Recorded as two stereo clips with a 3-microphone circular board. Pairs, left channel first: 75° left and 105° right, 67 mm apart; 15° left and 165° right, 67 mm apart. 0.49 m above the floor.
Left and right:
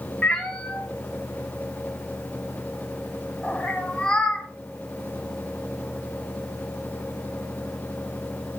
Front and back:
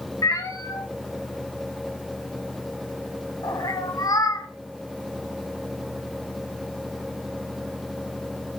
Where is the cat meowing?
Straight ahead, 1.5 m.